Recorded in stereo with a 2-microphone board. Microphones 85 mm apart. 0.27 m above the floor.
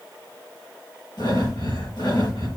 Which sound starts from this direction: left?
Breathing, at 1.2 s.